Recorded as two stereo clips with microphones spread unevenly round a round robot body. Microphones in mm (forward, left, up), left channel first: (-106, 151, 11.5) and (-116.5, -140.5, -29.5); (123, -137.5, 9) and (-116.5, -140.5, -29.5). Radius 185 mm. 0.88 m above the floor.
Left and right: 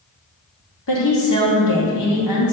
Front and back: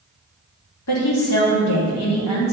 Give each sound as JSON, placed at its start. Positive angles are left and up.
{"t": 0.9, "sound": "a woman speaking", "azimuth_deg": 40, "distance_m": 1.1}